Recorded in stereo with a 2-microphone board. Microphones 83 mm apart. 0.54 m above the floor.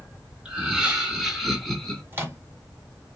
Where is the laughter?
15° right (ahead or behind), 1.7 m; by 2.0 s 10° left (ahead or behind), 1.2 m.